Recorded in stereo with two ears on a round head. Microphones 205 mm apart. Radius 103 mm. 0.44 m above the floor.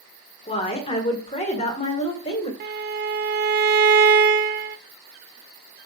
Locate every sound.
0.5 s a woman speaking: 25° left (ahead or behind), 1.4 m
2.6 s a violin: 45° right (ahead or behind), 0.5 m